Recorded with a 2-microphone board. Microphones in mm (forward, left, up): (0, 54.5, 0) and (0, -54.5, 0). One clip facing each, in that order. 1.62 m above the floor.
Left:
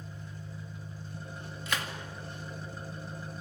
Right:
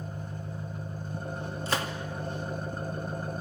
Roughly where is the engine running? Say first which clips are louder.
Right 7 dB; right.